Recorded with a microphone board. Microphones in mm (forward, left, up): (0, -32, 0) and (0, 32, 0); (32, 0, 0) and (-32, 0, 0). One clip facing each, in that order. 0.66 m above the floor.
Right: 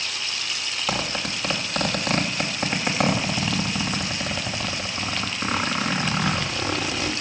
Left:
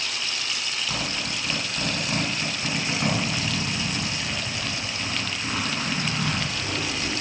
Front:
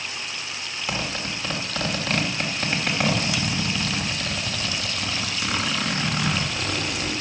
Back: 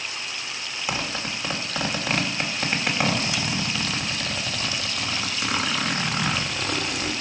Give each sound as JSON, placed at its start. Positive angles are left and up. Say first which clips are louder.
{"t": 0.9, "sound": "a zipper", "louder": "right 6 dB, even", "azimuth_deg": -105, "distance_m": 2.5}